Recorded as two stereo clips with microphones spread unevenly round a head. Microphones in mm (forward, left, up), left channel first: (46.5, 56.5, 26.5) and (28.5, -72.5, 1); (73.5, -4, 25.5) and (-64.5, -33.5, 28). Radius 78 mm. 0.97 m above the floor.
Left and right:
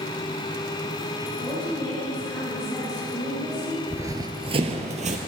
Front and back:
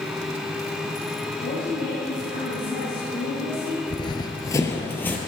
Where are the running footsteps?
20° right, 1.1 m; by 5.2 s 65° right, 1.6 m.